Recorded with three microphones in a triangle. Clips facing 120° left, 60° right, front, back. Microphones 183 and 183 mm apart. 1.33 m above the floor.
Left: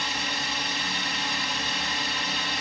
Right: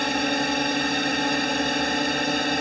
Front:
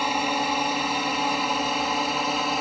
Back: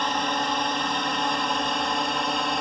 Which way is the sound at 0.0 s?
80° right.